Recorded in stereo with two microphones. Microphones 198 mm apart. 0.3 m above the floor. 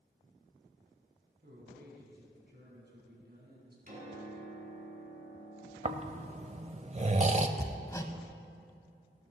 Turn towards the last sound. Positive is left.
turn(degrees=15)  # may be behind; listen again after turning